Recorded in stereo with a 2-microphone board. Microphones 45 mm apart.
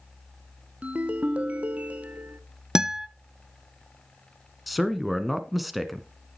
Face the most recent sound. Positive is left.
turn(degrees=0)  # may be behind; listen again after turning